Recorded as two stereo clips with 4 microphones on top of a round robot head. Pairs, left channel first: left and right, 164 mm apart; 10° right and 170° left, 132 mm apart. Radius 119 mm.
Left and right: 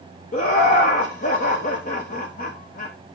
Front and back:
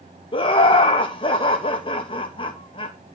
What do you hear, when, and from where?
0.3 s laughter: 40° left, 1.2 m